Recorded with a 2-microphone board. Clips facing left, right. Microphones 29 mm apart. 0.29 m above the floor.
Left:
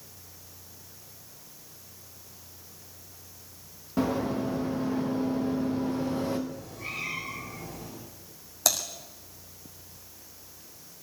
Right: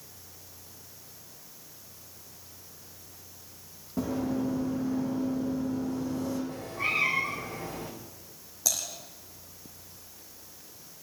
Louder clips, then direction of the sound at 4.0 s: Left 2 dB; 65° left (ahead or behind).